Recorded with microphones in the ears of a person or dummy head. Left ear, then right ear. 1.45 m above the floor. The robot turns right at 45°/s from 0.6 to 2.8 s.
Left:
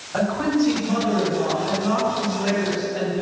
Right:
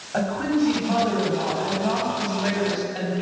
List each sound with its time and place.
0.1 s a woman speaking: 170° right, 3 m; by 3.2 s 70° right, 3 m